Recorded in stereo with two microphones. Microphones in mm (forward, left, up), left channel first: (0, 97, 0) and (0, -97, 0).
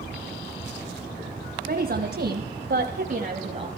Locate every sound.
1.6 s a woman speaking: 55° right (ahead or behind), 2 m; by 3.7 s 30° right (ahead or behind), 1.9 m